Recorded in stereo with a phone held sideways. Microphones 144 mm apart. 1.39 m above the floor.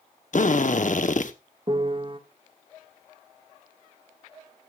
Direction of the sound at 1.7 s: 35° right (ahead or behind).